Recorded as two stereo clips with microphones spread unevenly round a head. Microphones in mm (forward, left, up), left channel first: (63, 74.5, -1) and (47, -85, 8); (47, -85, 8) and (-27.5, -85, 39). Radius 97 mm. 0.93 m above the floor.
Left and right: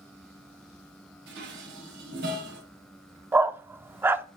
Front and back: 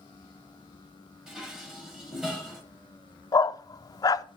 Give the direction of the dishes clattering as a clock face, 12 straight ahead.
3 o'clock.